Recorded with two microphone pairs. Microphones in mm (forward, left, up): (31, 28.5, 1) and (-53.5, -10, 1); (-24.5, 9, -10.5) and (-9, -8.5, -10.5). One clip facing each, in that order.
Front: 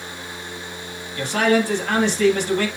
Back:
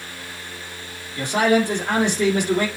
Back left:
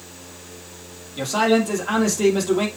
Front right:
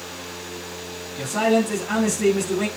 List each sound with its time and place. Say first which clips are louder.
1.2 s a man speaking: even, back left 1 dB; 130° left, 2.5 m